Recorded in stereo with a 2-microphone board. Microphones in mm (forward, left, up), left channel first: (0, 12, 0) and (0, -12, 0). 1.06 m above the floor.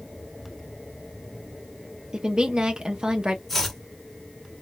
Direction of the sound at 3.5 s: 5° left (ahead or behind).